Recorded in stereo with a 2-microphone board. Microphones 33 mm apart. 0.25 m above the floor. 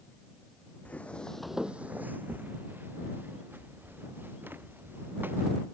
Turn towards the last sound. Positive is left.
turn(degrees=-85)